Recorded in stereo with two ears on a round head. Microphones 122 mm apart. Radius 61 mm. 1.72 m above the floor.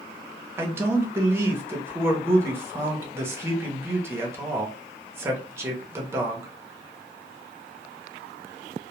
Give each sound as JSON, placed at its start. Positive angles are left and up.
{"t": 0.6, "sound": "a man speaking", "side_deg": -15, "distance_m": 0.7}